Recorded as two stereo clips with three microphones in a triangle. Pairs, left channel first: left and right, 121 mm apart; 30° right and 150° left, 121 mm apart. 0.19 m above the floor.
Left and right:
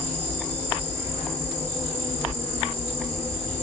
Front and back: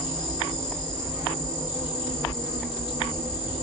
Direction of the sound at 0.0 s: 160° left.